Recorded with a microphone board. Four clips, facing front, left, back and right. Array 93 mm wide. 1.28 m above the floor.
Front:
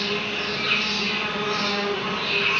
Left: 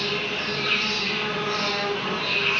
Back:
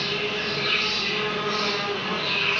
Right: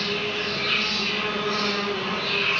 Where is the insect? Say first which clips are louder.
Right 1 dB, even; 5° left, 1.8 m.